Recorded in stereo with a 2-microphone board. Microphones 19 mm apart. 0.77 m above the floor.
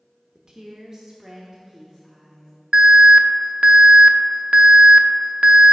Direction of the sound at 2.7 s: 55° right (ahead or behind).